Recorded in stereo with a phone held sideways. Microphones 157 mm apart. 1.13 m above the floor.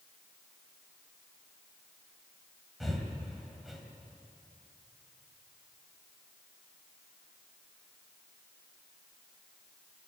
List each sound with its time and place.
2.8 s breathing: centre (ahead or behind), 2.5 m